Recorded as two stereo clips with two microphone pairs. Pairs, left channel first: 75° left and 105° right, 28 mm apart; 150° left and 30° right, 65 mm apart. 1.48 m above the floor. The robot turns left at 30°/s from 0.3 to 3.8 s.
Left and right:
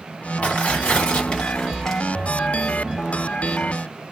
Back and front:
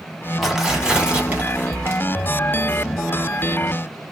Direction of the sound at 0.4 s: 55° left.